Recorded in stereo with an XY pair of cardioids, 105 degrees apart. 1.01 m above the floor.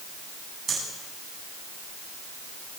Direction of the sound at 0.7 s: 50° right.